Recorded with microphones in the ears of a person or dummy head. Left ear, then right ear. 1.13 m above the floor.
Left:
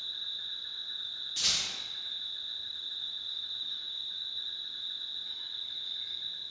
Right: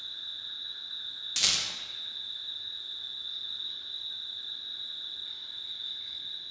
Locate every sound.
0.0 s an insect: 10° left (ahead or behind), 0.7 m
1.4 s a rattle: 55° right (ahead or behind), 0.5 m